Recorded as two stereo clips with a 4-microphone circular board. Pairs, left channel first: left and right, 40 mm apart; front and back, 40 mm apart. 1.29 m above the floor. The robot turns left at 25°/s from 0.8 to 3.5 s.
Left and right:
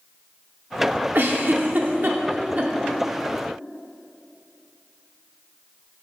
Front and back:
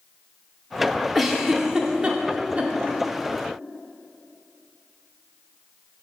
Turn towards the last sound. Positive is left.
turn(degrees=-150)